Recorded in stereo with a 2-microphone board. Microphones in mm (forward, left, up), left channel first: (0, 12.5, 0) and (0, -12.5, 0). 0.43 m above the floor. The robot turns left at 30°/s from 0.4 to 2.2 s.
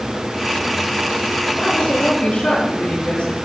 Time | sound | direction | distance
1.6 | a woman speaking | 80° left | 8 m